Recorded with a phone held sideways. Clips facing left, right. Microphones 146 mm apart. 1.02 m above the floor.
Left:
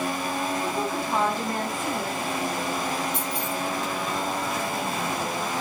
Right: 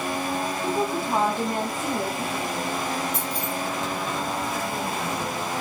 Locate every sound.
0.6 s a woman speaking: 20° right (ahead or behind), 0.7 m
3.1 s keys jangling: 80° right, 1.7 m